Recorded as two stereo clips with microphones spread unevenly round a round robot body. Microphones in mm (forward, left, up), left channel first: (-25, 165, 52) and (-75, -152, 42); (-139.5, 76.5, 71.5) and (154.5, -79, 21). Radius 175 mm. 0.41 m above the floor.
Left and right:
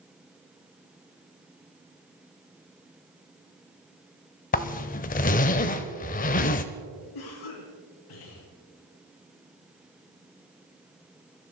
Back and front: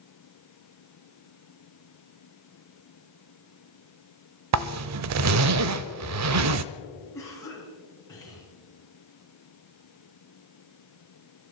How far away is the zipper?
About 0.6 m.